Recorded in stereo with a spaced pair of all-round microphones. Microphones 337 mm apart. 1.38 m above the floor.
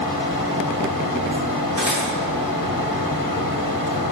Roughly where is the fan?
Left.